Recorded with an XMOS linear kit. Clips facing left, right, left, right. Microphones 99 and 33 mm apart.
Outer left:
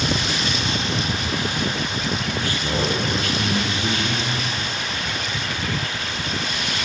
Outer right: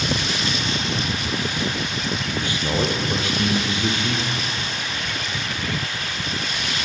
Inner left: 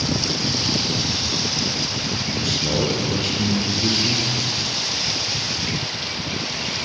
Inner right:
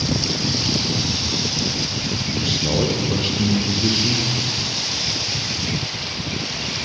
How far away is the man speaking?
About 4.5 m.